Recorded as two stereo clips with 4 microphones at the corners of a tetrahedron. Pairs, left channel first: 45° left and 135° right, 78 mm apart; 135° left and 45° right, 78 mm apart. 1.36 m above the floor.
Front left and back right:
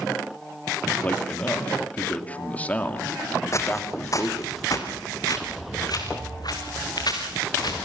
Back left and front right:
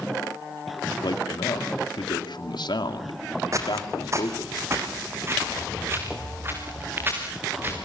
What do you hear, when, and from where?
1.0 s a man speaking: 115° left, 2.5 m
3.5 s footsteps: 5° right, 3 m; by 7.8 s 15° left, 6.5 m